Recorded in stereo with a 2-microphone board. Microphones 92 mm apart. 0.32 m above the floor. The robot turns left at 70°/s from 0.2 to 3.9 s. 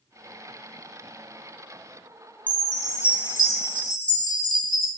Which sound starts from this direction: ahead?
A chime, at 2.5 s.